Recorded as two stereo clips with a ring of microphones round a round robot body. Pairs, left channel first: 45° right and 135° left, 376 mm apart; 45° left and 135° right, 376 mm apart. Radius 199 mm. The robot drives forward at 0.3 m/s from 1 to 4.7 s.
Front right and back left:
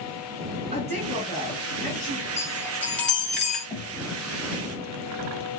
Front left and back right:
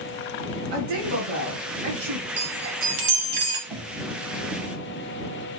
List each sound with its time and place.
0.7 s a woman speaking: 150° right, 6 m; by 2.2 s 155° right, 6 m
2.4 s a chime: 125° right, 2.5 m; by 3.6 s 135° right, 2.5 m
3.7 s knocking: 140° right, 2.5 m